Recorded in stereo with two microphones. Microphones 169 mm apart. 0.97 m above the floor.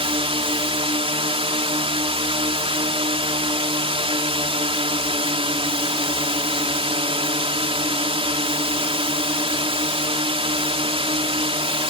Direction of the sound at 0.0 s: 35° right (ahead or behind).